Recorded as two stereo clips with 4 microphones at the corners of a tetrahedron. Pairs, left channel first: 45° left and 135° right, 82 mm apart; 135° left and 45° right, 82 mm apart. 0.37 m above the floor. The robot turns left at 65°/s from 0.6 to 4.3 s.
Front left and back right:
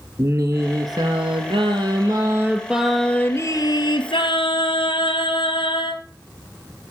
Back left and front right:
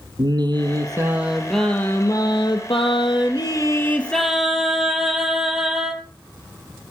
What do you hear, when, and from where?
0.2 s singing: 80° right, 2.5 m; by 6.0 s 40° left, 2.5 m